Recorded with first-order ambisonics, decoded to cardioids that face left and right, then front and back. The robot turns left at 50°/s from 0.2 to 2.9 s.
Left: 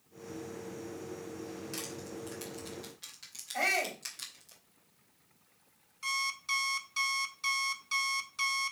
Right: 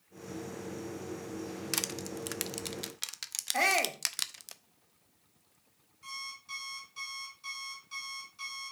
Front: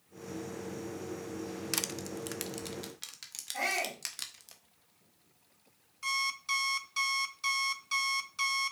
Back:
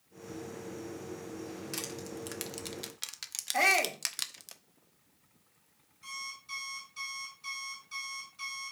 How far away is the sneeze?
No sneeze in this recording.